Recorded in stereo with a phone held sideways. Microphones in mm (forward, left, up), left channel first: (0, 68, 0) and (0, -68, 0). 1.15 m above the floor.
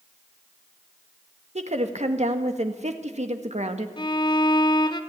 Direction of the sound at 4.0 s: 35° left (ahead or behind).